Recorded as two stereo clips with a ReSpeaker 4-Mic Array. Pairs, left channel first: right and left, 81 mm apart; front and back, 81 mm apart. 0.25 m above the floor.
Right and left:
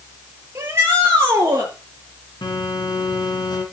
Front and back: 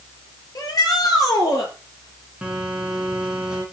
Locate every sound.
0.6 s a shout: 35° left, 5 m
2.4 s a phone buzzing: 105° right, 3.5 m